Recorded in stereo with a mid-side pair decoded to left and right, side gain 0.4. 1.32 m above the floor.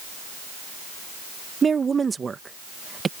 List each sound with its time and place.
1.6 s a woman speaking: 40° right